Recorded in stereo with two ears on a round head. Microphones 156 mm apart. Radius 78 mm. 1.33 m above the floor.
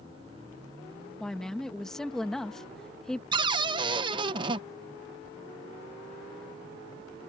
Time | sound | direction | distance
1.2 | a woman speaking | 5° left (ahead or behind) | ?
3.3 | a cupboard door | 25° right (ahead or behind) | ?